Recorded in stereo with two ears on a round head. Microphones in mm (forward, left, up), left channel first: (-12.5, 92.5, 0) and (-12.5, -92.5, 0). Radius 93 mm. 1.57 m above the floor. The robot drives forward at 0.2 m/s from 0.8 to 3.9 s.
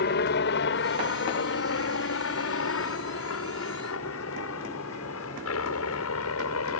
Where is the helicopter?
55° left (ahead or behind); by 6.8 s 80° left.